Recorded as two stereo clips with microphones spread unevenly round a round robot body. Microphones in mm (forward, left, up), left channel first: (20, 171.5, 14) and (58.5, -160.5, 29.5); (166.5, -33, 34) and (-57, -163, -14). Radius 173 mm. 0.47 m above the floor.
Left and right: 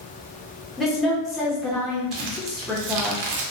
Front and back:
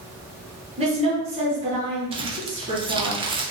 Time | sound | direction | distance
0.8 | a woman speaking | 175° right | 0.8 m
2.1 | crumpling | 80° right | 0.5 m